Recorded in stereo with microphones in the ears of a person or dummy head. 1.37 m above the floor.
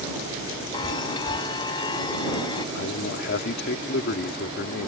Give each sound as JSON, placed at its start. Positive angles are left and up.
{"t": 0.7, "sound": "a chime", "side_deg": 25}
{"t": 2.8, "sound": "a man speaking", "side_deg": 60}